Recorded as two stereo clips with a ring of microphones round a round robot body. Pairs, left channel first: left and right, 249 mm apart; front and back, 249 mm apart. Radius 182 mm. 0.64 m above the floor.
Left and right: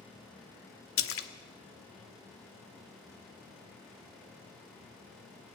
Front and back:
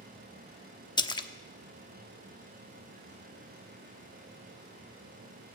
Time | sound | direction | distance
1.0 | a splash | 70° left | 1.0 m